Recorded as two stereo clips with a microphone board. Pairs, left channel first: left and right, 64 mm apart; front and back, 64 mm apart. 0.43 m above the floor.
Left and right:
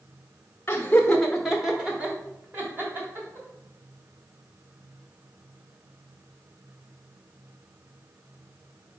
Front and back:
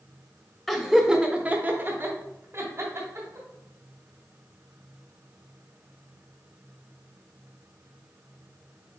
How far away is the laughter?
About 0.9 m.